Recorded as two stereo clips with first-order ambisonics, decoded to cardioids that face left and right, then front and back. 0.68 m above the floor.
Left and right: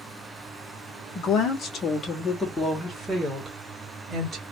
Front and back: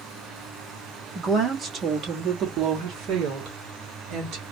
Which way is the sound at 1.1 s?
115° left.